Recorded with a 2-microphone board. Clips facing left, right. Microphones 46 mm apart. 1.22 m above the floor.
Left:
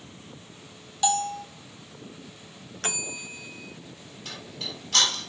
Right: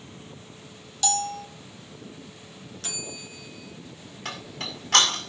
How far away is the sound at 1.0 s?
About 0.9 m.